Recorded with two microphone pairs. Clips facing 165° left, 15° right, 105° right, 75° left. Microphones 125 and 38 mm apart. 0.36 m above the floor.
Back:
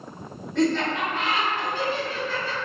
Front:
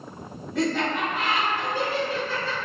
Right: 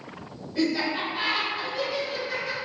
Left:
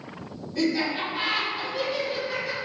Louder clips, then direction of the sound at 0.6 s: Back 2 dB, even; 90° right.